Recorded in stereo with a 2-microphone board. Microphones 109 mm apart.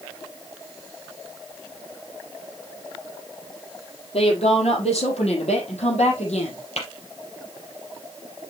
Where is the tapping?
75° left (ahead or behind), 4.5 m.